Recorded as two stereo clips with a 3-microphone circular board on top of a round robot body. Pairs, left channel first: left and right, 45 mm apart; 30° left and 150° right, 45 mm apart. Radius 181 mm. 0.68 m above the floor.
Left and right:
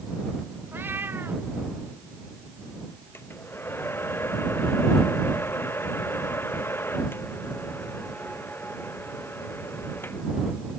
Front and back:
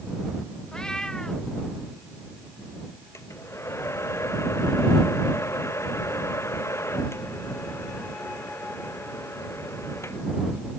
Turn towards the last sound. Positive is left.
turn(degrees=50)